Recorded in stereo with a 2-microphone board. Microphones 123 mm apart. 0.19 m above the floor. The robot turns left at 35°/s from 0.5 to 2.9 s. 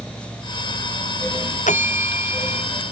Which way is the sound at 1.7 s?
100° left.